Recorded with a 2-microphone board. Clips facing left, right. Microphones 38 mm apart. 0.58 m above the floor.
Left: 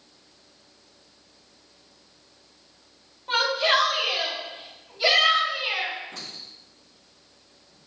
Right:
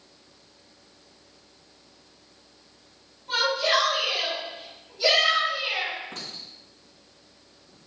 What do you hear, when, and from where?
3.3 s a shout: 40° left (ahead or behind), 3 m; by 5.9 s 25° left (ahead or behind), 4 m
6.1 s a clink: 60° right (ahead or behind), 3 m